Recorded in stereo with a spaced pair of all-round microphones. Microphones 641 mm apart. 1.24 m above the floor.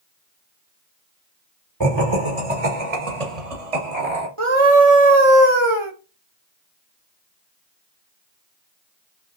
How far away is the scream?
About 1.0 m.